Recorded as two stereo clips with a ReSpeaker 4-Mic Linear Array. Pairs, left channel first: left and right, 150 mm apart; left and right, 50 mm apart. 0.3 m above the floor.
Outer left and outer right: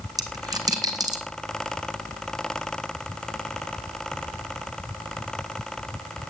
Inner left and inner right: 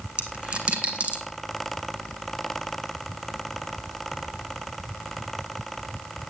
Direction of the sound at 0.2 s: 25° right (ahead or behind).